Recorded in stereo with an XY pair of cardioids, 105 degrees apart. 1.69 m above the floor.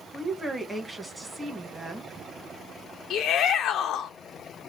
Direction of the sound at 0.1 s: 10° right.